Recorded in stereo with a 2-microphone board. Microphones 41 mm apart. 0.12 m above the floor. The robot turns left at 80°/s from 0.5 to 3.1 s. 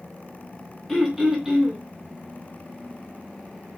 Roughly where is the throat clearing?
Centre.